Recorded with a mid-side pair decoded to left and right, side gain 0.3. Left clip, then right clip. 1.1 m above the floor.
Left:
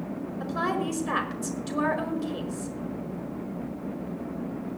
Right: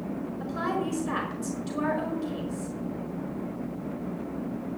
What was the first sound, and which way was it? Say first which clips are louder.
A woman speaking: left 2 dB; 50° left.